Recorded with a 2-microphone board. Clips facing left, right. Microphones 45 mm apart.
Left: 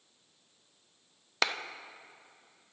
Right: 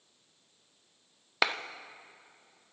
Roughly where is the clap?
Centre.